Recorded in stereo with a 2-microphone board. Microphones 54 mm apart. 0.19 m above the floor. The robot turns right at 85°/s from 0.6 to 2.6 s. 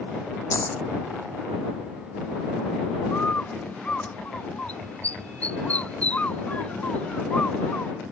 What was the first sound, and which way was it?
A dropped coin, 70° left (ahead or behind).